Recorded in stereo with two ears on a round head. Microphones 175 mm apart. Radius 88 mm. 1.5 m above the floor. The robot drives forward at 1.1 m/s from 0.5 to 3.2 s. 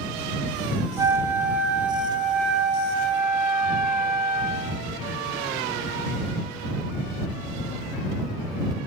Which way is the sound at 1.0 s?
15° right (ahead or behind).